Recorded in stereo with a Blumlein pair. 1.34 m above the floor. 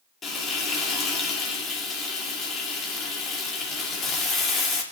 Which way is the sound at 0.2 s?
20° left.